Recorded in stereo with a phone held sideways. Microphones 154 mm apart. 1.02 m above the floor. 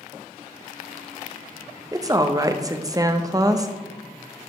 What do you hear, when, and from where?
1.9 s a woman speaking: 25° right (ahead or behind), 0.6 m